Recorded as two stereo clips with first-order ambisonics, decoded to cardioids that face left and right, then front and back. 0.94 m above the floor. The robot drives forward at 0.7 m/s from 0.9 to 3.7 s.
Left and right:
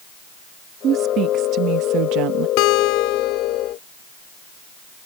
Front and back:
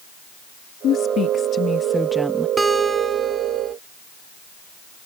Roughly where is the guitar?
Left.